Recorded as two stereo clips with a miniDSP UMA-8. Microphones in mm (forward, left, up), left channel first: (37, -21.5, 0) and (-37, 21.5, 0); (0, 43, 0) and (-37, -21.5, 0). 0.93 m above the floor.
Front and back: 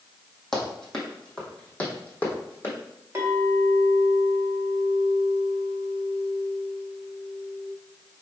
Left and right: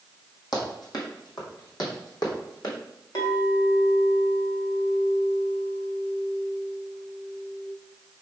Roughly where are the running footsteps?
Ahead left.